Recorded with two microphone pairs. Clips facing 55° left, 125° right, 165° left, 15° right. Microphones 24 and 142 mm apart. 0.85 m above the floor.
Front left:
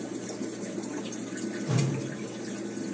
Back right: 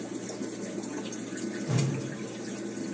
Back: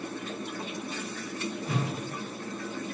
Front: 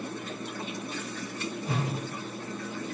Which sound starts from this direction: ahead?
A whoosh, at 1.6 s.